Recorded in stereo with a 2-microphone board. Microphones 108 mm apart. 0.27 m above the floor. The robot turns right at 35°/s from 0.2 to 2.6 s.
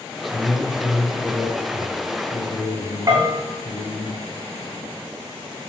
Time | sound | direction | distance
0.3 | a man speaking | 5° left | 7 m
3.1 | a bell | 35° right (ahead or behind) | 8 m